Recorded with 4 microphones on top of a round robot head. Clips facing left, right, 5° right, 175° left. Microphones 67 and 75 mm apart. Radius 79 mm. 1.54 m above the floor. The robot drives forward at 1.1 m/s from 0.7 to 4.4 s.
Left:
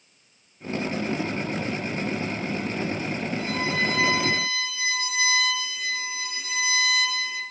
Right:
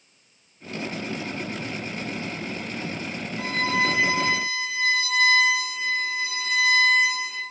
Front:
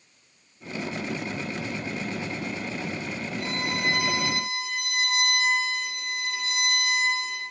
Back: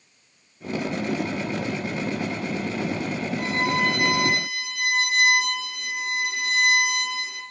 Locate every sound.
3.4 s a violin: 145° right, 9.5 m